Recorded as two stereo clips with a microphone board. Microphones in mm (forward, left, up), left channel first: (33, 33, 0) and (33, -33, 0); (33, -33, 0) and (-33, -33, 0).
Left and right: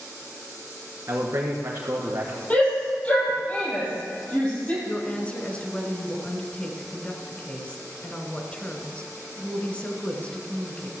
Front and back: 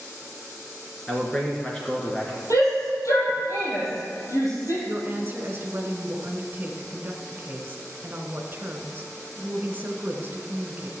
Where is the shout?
25° left, 5 m.